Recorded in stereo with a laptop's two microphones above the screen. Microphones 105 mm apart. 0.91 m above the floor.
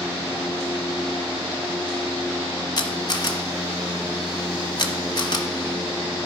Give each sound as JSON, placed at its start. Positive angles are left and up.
{"t": 2.8, "sound": "a camera shutter", "side_deg": 40, "distance_m": 1.2}